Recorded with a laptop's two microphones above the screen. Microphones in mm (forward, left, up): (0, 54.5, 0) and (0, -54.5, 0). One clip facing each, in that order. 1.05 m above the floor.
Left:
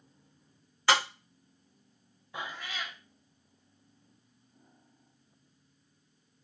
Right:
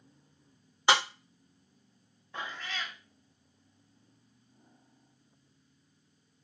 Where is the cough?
I don't hear a cough.